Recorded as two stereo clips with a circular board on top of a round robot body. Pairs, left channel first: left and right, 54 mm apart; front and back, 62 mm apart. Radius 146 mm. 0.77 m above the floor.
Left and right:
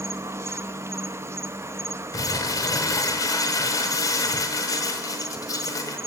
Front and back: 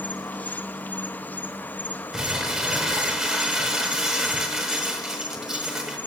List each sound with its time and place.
0.0 s an insect: 60° right, 0.9 m
2.1 s crumpling: 100° left, 1.7 m